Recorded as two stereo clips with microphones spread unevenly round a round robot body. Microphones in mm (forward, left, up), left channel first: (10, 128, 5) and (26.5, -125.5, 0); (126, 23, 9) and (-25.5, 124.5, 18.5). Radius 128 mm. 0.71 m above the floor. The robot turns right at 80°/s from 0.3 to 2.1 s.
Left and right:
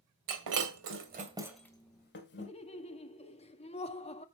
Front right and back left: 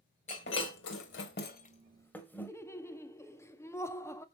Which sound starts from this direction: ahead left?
Laughter, at 2.4 s.